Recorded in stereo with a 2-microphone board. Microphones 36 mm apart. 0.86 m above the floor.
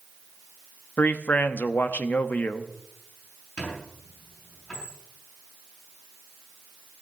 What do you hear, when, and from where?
1.0 s a man speaking: 60° left (ahead or behind), 1.0 m
3.6 s a squeak: 30° left (ahead or behind), 5.5 m